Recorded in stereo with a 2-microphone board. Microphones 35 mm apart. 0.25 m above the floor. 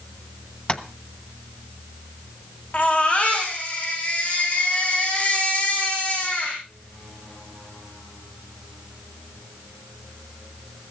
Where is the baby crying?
40° left (ahead or behind), 5.5 m.